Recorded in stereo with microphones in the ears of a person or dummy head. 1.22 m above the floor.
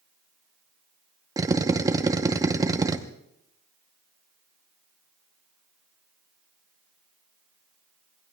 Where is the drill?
20° right (ahead or behind), 0.8 m.